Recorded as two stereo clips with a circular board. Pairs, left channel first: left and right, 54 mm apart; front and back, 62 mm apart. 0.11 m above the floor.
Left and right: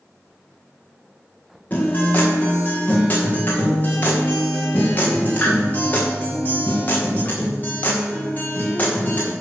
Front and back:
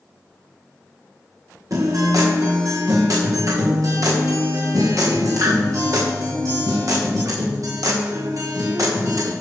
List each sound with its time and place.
1.7 s a guitar: 150° left, 5.5 m